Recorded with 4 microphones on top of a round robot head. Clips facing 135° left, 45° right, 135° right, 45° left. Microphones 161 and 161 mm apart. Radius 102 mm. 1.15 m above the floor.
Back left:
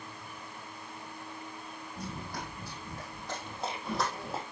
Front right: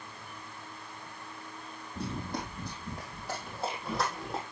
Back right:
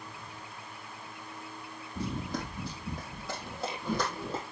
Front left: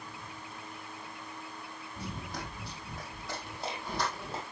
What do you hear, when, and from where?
1.9 s running footsteps: 110° right, 3 m; by 4.4 s 140° right, 3.5 m